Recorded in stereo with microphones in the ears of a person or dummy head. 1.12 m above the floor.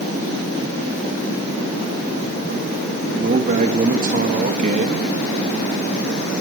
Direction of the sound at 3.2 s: 40° right (ahead or behind).